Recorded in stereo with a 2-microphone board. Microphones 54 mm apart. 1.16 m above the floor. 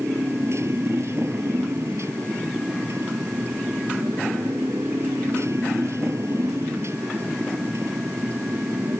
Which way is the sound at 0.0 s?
60° right (ahead or behind).